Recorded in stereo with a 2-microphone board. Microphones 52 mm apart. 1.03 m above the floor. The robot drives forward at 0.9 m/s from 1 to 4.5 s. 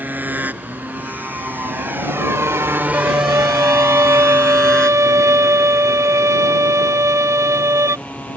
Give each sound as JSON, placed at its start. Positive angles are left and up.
{"t": 0.0, "sound": "a motorcycle", "side_deg": -35}
{"t": 2.9, "sound": "a violin", "side_deg": -70}